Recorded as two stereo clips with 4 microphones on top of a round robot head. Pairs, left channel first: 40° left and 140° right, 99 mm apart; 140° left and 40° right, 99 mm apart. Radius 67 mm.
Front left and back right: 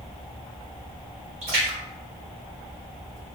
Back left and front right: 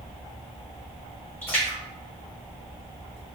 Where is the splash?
150° right, 1.2 m.